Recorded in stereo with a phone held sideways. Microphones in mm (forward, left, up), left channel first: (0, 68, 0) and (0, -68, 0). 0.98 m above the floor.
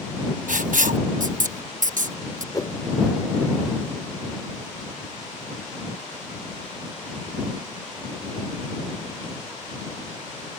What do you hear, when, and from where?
0.5 s writing: 75° right (ahead or behind)
2.5 s a whoosh: 25° left (ahead or behind)